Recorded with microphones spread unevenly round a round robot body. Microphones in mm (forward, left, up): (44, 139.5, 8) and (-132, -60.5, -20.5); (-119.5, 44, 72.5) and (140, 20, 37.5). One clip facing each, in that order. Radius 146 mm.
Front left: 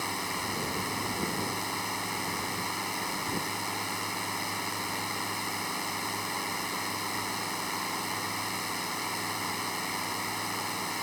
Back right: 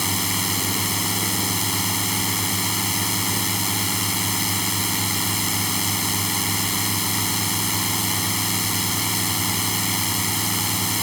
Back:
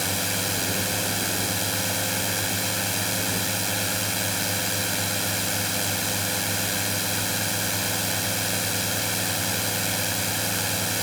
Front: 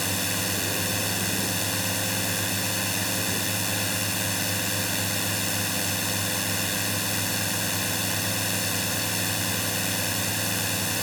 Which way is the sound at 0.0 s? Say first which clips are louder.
Back right 9 dB, back 1 dB; 90° right.